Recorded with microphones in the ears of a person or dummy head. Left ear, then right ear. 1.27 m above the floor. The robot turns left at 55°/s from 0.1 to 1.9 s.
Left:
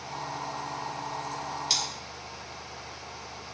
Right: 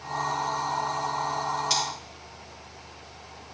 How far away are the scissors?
About 3 m.